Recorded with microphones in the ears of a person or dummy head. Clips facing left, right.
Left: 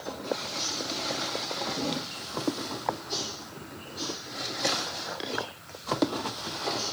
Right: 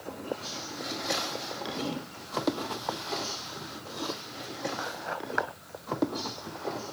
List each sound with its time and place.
Only background noise.